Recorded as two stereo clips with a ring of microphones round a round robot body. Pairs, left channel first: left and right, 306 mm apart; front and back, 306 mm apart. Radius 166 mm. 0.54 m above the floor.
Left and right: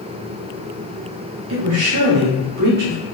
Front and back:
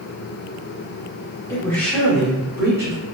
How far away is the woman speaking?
About 1.0 m.